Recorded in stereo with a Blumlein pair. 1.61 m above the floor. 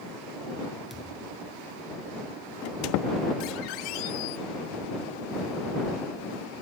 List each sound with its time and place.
0.9 s a thud: straight ahead
2.6 s a squeak: 40° left